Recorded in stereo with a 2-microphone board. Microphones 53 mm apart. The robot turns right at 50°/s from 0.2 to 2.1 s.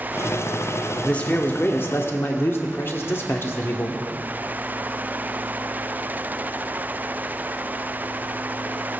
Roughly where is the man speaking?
Ahead left.